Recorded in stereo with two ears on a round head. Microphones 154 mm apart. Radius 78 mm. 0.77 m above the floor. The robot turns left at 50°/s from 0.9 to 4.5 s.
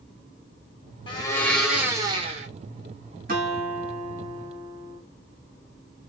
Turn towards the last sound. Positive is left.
turn(degrees=-150)